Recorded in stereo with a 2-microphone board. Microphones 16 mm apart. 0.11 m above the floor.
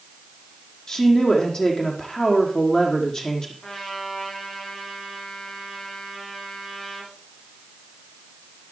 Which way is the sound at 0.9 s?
50° left (ahead or behind).